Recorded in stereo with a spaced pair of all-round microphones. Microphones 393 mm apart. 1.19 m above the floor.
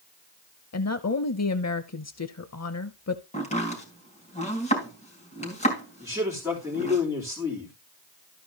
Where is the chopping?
15° left (ahead or behind), 3.5 m.